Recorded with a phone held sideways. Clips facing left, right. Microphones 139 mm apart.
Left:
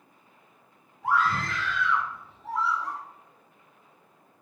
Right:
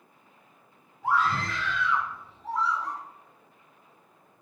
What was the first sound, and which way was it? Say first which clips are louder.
A scream: even; centre (ahead or behind).